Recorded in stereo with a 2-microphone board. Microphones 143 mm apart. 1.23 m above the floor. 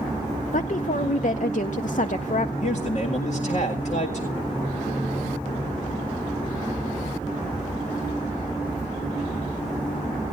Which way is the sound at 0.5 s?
60° left (ahead or behind).